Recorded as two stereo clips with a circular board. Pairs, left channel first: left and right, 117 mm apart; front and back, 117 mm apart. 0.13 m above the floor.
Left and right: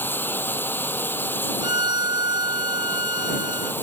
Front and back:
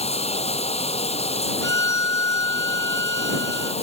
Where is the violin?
55° right.